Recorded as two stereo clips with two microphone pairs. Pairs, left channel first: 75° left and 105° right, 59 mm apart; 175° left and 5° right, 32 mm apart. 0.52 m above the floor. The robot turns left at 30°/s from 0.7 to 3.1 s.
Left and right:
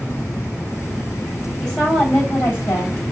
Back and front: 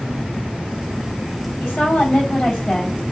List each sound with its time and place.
1.6 s a woman speaking: 150° left, 4 m; by 3.0 s 105° left, 4 m